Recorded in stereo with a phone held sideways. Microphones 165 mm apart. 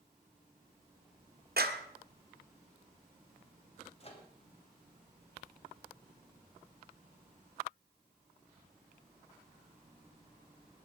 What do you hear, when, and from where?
1.6 s a clap: 70° right (ahead or behind), 1.3 m
4.0 s a microwave: 40° left (ahead or behind), 2.5 m